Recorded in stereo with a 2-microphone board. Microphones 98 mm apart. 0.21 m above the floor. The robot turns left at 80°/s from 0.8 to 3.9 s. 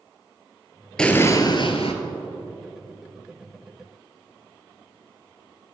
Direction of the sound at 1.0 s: 170° left.